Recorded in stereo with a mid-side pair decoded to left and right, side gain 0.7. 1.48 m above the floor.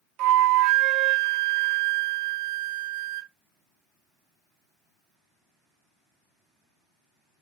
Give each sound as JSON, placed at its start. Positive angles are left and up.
{"t": 0.2, "sound": "a flute", "azimuth_deg": -65, "distance_m": 0.6}